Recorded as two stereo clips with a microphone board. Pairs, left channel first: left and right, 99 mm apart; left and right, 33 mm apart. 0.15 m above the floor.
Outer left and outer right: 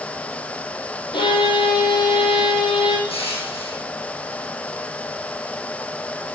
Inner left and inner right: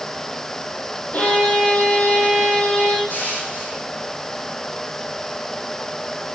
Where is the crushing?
75° left (ahead or behind), 5 m.